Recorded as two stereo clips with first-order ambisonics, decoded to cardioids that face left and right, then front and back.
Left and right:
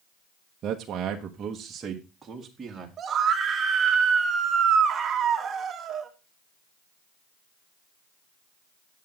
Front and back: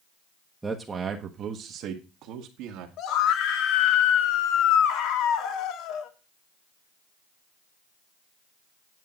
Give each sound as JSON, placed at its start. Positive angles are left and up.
{"t": 0.6, "sound": "a man speaking", "azimuth_deg": -100, "distance_m": 1.0}
{"t": 3.0, "sound": "a scream", "azimuth_deg": -30, "distance_m": 1.5}